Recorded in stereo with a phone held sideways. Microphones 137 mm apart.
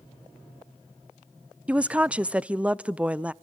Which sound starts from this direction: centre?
A woman speaking, at 1.7 s.